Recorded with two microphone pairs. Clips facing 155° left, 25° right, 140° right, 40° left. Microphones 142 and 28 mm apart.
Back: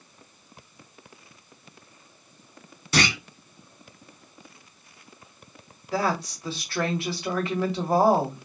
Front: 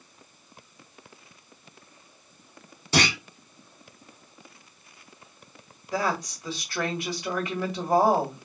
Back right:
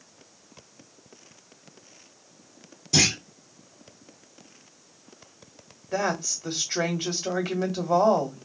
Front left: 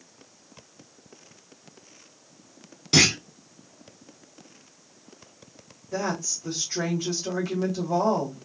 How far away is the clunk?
About 2.0 m.